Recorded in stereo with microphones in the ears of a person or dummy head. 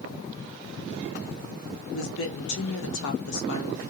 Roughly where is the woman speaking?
Left.